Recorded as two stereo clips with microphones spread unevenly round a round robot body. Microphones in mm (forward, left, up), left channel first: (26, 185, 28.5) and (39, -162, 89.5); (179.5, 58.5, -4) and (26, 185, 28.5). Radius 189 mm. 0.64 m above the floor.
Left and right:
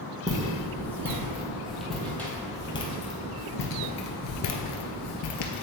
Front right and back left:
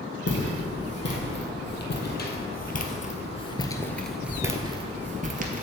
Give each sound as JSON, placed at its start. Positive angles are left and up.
{"t": 0.3, "sound": "footsteps", "azimuth_deg": -10, "distance_m": 2.0}